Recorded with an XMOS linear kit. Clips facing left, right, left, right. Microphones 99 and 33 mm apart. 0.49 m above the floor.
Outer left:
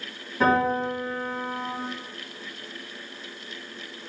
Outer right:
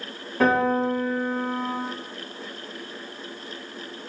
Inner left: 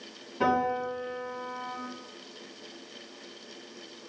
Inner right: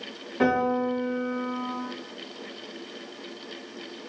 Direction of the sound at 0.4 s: 65° right (ahead or behind).